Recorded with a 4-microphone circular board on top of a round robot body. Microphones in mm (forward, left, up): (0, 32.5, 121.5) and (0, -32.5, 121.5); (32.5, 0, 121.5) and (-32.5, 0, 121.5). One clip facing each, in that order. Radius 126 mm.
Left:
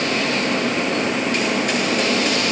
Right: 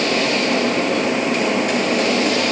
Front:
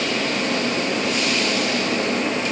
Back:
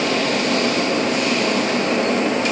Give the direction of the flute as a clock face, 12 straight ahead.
I don't hear a flute.